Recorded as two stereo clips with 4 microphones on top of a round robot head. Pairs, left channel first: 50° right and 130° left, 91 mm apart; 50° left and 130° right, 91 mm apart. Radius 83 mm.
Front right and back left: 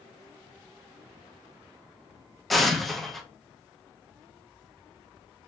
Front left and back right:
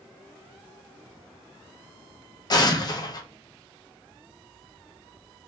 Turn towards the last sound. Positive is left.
turn(degrees=40)